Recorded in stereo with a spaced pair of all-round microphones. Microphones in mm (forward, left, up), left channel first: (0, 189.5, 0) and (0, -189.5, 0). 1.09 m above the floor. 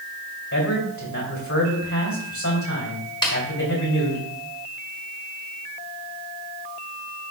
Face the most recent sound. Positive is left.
turn(degrees=10)  # may be behind; listen again after turning